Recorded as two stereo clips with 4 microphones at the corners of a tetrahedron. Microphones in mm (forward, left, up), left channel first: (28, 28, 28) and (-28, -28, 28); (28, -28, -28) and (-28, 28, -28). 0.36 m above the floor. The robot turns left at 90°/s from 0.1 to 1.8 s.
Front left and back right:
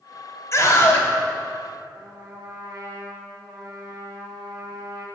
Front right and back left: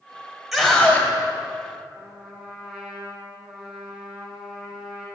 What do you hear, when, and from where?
0.5 s a scream: 45° left, 1.7 m; by 1.1 s 5° right, 1.7 m
1.9 s a trumpet: 145° right, 1.8 m